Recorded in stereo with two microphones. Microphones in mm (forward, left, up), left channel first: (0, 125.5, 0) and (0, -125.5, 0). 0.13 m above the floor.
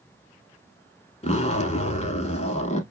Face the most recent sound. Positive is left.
turn(degrees=25)  # may be behind; listen again after turning